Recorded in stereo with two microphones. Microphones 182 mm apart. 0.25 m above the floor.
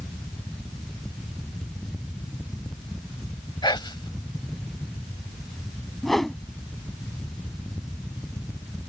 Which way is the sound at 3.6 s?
25° left (ahead or behind).